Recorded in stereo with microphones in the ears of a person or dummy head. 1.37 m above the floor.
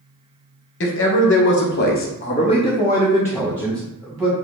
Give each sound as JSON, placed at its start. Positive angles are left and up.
{"t": 0.8, "sound": "a man speaking", "side_deg": 55, "distance_m": 0.9}